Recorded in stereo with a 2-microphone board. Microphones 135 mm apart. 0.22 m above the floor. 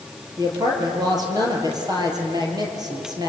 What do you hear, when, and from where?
0.4 s a woman speaking: 30° right (ahead or behind), 5 m